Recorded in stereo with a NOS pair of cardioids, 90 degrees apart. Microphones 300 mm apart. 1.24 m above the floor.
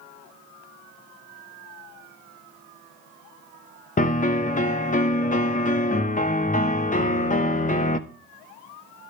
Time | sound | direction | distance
4.0 | a piano | 25° left | 0.6 m